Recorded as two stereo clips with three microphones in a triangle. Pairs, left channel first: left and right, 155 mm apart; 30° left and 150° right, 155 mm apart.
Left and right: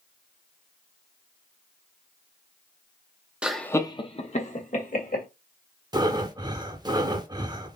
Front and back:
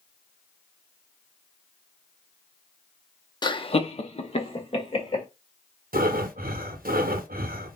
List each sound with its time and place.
3.4 s laughter: 15° right, 0.6 m; by 5.2 s 80° left, 1.6 m
5.9 s breathing: 155° right, 0.6 m